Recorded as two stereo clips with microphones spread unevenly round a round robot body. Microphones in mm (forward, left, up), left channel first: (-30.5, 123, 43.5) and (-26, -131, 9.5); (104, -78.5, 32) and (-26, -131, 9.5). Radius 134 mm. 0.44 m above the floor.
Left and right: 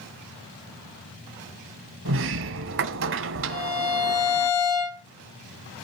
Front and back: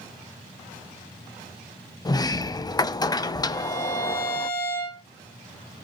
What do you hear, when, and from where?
2.0 s a sliding door: 40° right, 0.6 m
3.5 s a violin: 80° left, 9.5 m